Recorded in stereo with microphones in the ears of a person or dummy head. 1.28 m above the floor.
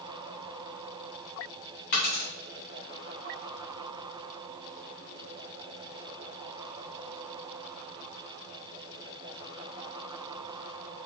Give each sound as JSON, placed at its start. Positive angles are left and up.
{"t": 1.9, "sound": "a dropped coin", "side_deg": 50, "distance_m": 0.8}